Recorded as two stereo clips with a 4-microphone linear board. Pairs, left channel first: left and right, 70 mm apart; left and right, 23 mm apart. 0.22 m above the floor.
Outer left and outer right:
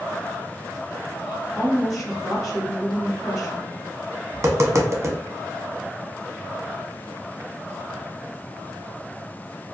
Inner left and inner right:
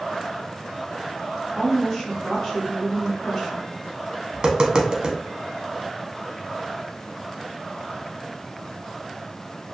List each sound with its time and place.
1.6 s a woman speaking: 5° right (ahead or behind), 1.7 m
4.3 s tapping: 40° right (ahead or behind), 0.5 m